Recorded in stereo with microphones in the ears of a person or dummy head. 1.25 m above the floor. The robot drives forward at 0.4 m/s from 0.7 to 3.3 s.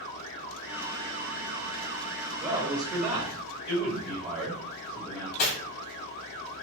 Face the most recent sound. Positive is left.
turn(degrees=45)  # may be behind; listen again after turning